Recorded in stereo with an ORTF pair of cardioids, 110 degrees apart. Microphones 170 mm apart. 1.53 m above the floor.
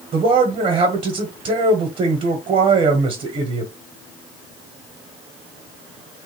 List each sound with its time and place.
0.1 s a man speaking: 40° right, 1.2 m